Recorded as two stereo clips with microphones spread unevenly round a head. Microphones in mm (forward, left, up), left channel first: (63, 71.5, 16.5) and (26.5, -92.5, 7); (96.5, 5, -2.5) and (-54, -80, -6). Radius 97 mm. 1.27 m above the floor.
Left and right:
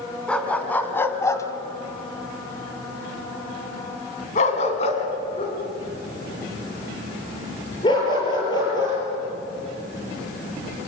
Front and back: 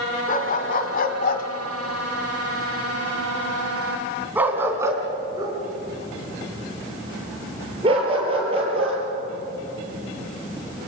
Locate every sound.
0.3 s a dog barking: 5° right, 3 m; by 9.0 s 145° left, 7.5 m